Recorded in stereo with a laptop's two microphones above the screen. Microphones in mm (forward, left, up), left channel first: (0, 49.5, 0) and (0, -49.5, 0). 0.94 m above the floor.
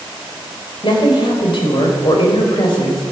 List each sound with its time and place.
0.8 s a woman speaking: 60° left (ahead or behind), 4 m